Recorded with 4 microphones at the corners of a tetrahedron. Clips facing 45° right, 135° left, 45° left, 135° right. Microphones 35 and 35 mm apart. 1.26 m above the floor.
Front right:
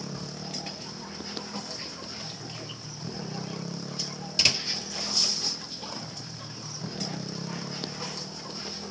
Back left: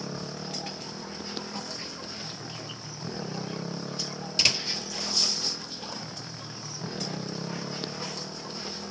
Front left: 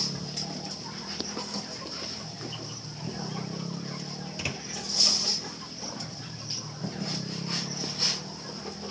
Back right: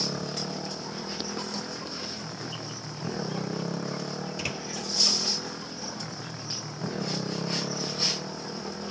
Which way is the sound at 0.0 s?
155° right.